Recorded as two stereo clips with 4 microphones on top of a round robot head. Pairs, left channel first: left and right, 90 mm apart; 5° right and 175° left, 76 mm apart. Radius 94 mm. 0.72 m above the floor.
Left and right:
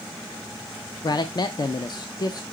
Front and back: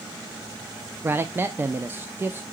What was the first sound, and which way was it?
A man speaking, 120° left.